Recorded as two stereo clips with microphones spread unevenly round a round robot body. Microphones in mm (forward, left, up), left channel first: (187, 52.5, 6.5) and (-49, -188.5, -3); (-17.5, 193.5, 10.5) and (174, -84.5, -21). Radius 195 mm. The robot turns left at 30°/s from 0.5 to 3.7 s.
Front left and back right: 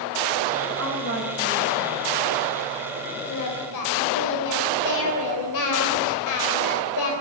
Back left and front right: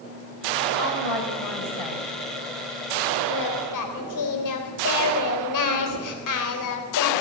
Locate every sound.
0.8 s a woman speaking: 170° left, 4 m; by 2.1 s 130° left, 4 m
3.3 s singing: 105° left, 3.5 m; by 7.1 s 95° left, 3.5 m